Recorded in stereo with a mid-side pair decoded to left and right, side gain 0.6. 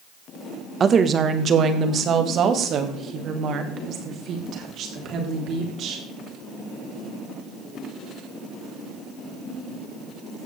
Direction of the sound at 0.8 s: 35° right.